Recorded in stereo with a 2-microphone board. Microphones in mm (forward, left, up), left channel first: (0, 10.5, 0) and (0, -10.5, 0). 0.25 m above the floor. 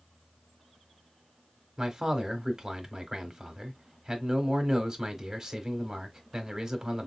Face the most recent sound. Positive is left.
turn(degrees=-25)  # may be behind; listen again after turning